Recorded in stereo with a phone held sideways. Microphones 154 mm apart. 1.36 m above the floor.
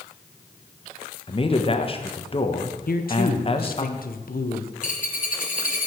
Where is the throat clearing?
I don't hear throat clearing.